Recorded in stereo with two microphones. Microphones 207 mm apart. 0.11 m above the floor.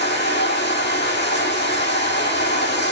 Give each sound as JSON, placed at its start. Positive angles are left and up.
{"t": 0.0, "sound": "running water", "side_deg": 65, "distance_m": 1.8}